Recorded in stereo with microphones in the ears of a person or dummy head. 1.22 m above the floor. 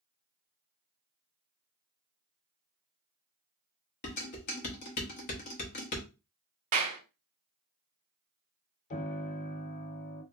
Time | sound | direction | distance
4.0 | dishes clattering | 40° left (ahead or behind) | 0.8 m
6.7 | a clap | 40° right (ahead or behind) | 0.5 m
8.9 | a piano | 40° left (ahead or behind) | 0.8 m